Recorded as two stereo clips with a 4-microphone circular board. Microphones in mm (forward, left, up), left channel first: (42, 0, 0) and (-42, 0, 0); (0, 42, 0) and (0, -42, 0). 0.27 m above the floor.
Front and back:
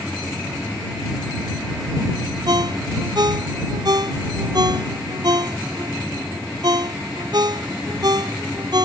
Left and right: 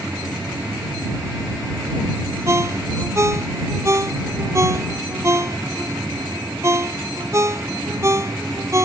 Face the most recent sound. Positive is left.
turn(degrees=-145)